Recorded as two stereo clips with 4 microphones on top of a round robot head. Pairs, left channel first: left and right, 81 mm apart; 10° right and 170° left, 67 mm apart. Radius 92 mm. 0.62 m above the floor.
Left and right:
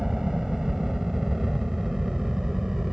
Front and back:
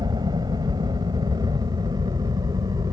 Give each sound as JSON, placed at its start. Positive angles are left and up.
{"t": 0.0, "sound": "a helicopter", "azimuth_deg": -175}